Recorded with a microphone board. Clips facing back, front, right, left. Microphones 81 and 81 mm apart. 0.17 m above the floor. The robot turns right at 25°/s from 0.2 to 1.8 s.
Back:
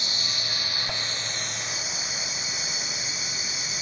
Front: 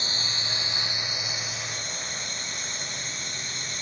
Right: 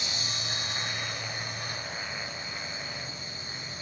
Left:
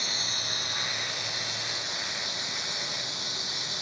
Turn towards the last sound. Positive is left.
turn(degrees=95)